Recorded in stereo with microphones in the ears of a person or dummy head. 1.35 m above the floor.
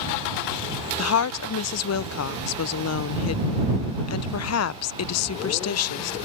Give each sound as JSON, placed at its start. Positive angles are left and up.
{"t": 1.0, "sound": "a woman speaking", "side_deg": 75}